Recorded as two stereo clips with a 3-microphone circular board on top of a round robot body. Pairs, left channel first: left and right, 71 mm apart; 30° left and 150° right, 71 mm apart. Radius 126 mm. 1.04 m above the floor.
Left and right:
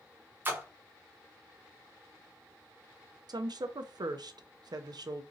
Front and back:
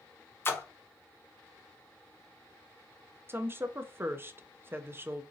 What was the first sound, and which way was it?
A splash, 30° right.